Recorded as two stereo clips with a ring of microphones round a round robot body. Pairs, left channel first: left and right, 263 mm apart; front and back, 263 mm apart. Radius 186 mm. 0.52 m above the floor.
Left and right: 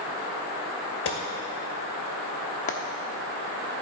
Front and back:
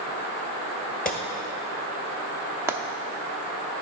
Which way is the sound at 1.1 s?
60° left.